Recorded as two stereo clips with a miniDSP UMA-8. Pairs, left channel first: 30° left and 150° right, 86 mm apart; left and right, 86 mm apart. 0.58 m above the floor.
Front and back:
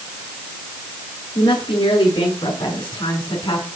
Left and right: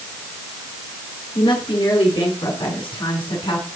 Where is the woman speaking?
55° left, 7.5 m; by 3.7 s 60° left, 6.5 m.